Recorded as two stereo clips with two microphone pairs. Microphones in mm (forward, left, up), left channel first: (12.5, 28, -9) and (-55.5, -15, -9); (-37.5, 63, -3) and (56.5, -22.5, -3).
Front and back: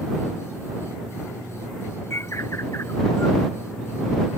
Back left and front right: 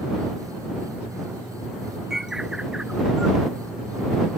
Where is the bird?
40° left.